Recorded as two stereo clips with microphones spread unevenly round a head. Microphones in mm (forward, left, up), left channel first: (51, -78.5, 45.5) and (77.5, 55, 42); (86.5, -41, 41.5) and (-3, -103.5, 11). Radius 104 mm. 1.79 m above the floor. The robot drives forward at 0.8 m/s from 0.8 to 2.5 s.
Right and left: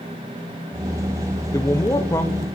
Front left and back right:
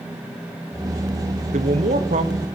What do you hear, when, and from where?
1.5 s a man speaking: 175° right, 1.5 m; by 2.5 s straight behind, 2 m